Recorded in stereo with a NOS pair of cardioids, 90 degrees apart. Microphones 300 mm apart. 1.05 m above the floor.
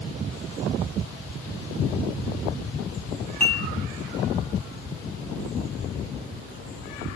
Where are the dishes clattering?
5° left, 6 m.